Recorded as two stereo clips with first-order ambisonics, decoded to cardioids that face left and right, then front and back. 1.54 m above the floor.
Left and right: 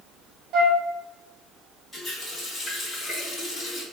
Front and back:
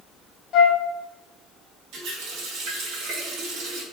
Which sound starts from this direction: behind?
A running tap, at 1.9 s.